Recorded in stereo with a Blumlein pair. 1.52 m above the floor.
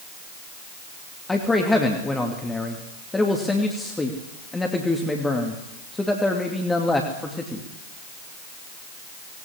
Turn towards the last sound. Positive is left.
turn(degrees=10)